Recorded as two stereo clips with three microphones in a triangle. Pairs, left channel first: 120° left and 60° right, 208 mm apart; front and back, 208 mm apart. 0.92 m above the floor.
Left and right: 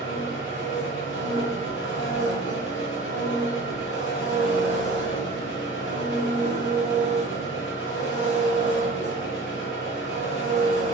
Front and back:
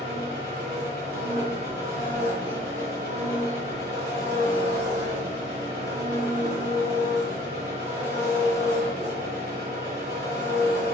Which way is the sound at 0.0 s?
140° left.